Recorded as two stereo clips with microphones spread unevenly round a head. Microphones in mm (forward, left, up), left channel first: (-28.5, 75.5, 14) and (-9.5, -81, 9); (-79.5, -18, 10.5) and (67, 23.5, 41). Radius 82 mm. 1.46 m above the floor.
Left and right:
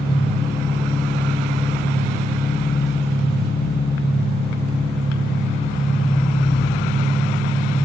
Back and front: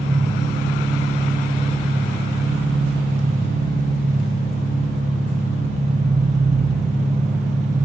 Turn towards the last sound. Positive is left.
turn(degrees=65)